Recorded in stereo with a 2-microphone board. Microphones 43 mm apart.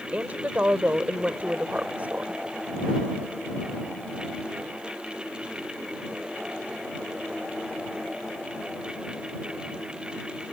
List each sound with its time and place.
0.1 s a woman speaking: 35° right (ahead or behind)